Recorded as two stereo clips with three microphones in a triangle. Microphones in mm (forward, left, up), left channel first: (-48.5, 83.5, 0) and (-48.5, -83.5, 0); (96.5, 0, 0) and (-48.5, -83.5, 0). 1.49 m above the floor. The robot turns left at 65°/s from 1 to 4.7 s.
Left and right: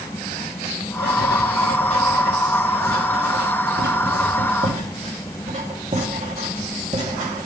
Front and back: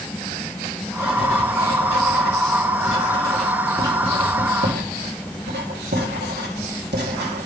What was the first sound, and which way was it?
Writing, 105° left.